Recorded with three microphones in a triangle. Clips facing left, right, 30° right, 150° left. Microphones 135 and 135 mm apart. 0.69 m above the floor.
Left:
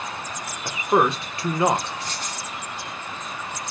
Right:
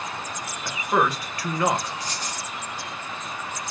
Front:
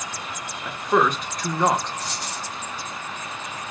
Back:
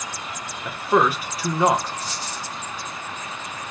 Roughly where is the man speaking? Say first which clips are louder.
Left 3 dB, back 1 dB; left.